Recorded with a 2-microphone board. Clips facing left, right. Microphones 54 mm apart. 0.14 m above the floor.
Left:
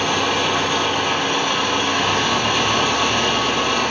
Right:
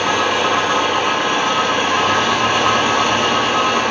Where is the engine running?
75° right (ahead or behind), 3.5 m.